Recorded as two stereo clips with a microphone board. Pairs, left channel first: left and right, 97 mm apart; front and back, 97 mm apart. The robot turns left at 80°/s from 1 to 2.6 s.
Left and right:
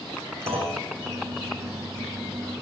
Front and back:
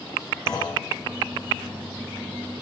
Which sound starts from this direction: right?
A clunk, at 0.5 s.